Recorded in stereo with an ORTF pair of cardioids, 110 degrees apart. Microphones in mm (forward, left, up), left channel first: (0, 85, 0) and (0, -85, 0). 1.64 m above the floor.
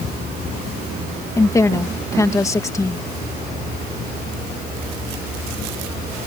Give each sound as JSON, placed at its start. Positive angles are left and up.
{"t": 1.4, "sound": "a woman speaking", "azimuth_deg": 20}